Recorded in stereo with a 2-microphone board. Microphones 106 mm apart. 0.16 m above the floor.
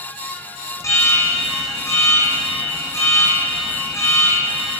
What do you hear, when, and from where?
0.8 s an alarm: 25° left (ahead or behind), 6 m